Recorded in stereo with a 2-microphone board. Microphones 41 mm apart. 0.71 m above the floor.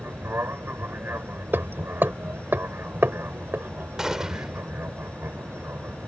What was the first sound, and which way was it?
An aircraft, 60° right (ahead or behind).